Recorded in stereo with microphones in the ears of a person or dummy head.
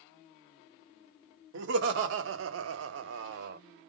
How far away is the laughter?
About 1.2 m.